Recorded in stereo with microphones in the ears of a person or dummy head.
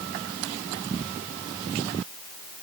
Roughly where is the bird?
I don't hear a bird.